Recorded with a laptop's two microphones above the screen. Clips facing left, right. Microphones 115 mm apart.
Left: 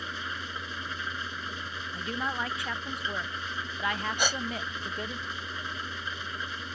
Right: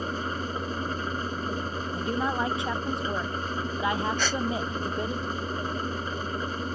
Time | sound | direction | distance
0.0 | an engine running | 45° right (ahead or behind) | ?
1.9 | a woman speaking | 25° right (ahead or behind) | ?
4.2 | a gasp | 15° left (ahead or behind) | ?